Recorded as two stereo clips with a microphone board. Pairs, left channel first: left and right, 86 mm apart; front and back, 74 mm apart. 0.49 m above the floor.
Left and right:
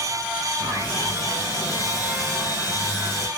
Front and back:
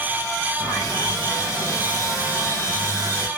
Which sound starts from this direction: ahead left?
Sawing, at 0.6 s.